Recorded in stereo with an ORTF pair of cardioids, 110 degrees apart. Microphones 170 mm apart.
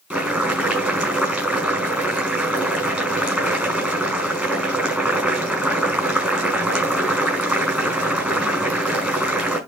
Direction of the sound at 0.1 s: 10° right.